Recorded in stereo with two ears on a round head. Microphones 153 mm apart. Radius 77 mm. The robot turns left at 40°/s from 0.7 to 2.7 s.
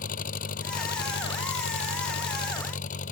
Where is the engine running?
125° left; by 3.1 s 45° left.